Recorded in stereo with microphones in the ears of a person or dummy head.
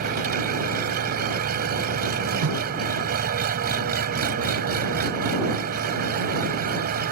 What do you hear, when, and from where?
0.0 s an engine running: 60° right (ahead or behind)
2.4 s a whoosh: 65° right (ahead or behind)